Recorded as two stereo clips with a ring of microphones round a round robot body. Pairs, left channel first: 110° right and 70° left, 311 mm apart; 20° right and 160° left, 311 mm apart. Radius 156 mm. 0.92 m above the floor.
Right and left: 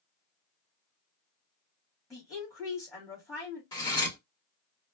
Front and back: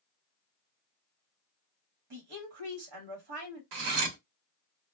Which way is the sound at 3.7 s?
170° left.